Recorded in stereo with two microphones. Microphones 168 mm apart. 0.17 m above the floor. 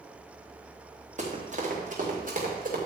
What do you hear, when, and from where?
1.2 s running footsteps: 45° right (ahead or behind), 4.5 m; by 2.8 s 55° right (ahead or behind), 5 m